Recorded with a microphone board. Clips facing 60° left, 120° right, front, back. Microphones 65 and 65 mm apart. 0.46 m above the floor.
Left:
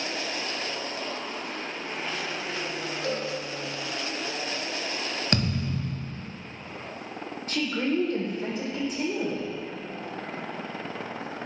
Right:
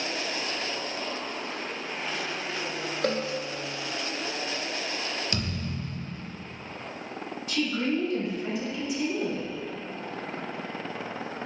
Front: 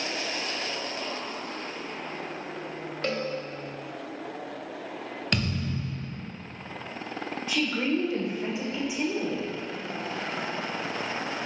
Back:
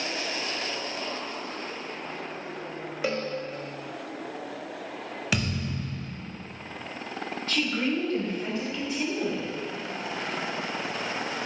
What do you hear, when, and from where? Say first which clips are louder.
3.0 s a cowbell: right 4 dB, back 1 dB; 100° right, 1.1 m
5.3 s a thud: left 5 dB, even; 95° left, 0.8 m
7.5 s a woman speaking: even, front 1 dB; 70° left, 1.6 m